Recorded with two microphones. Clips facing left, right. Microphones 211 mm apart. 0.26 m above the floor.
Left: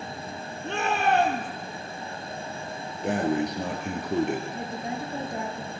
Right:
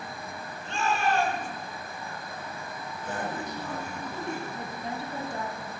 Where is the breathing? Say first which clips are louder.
Left 10 dB; 75° left (ahead or behind), 4 m.